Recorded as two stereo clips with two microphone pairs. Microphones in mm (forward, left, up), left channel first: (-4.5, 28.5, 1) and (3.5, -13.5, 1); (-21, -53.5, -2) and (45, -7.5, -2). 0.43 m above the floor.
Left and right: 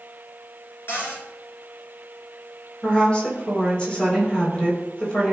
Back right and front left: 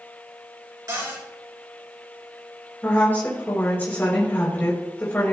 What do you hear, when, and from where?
0.9 s a cupboard door: 80° left, 3.5 m
2.8 s a woman speaking: 155° left, 2.5 m